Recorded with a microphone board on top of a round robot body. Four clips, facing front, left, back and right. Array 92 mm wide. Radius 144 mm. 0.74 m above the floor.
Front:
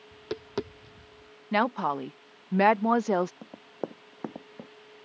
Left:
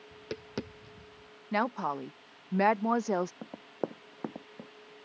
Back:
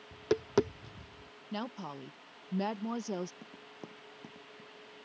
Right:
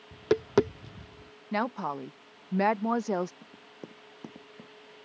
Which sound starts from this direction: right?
Tapping, at 0.1 s.